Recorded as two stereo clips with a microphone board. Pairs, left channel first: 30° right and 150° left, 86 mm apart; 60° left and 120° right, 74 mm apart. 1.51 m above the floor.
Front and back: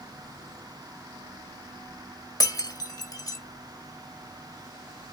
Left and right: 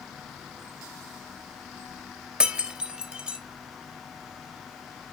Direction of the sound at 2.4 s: 50° right.